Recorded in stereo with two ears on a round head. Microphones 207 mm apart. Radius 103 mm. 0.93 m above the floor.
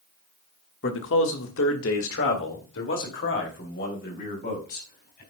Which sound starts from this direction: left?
A man speaking, at 0.8 s.